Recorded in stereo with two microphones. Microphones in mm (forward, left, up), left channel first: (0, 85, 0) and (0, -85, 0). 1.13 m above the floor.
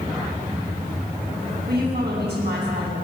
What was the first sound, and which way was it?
A woman speaking, 90° right.